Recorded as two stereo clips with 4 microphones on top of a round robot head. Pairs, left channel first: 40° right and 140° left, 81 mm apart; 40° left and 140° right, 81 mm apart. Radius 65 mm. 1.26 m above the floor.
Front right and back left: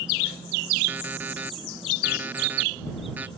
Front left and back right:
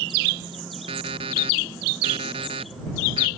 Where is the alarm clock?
150° right.